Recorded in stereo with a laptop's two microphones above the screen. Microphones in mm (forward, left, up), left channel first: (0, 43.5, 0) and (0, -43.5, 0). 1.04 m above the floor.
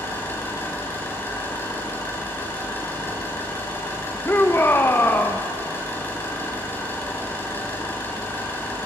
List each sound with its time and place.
0.0 s an engine running: 25° left (ahead or behind), 7.5 m
4.2 s a shout: 25° left (ahead or behind), 1.3 m